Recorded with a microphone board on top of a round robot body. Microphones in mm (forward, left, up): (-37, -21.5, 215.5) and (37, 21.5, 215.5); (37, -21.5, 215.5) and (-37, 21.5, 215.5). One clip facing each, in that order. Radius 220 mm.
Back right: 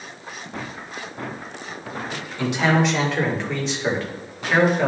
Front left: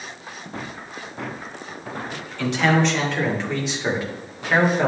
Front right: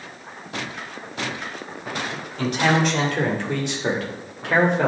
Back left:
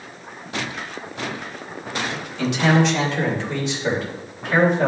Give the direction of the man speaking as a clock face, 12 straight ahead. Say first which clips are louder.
Even, back left 2 dB; 3 o'clock.